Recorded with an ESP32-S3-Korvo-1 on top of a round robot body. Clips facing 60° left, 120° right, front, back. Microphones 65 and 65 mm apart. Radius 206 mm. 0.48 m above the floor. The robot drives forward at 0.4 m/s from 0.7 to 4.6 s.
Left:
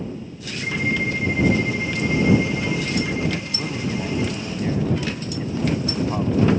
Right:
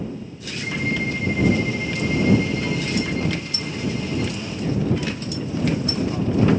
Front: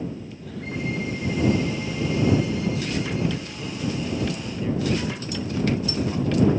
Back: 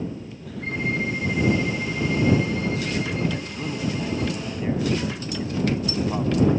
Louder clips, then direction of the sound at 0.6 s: Left 1 dB, back 3 dB; 130° left.